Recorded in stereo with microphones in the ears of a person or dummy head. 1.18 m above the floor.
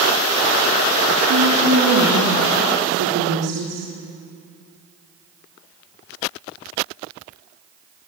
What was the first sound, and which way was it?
A woman speaking, 80° right.